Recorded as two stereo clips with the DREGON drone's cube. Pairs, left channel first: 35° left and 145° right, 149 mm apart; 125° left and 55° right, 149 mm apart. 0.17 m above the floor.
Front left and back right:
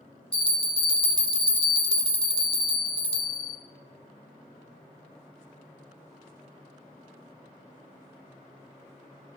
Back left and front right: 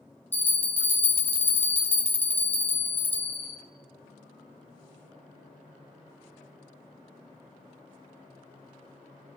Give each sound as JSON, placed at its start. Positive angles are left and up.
{"t": 0.3, "sound": "a bell", "azimuth_deg": 55, "distance_m": 1.0}